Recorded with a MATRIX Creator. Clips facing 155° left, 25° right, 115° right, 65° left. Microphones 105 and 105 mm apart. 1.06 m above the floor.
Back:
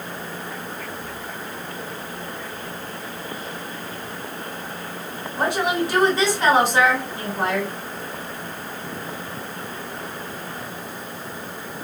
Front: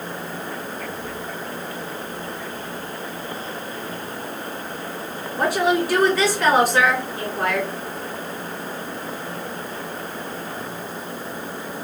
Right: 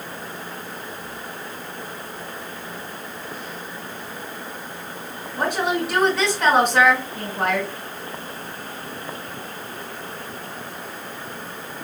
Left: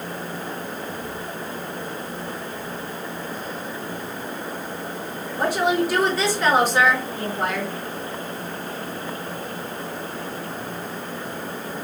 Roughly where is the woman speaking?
Behind right.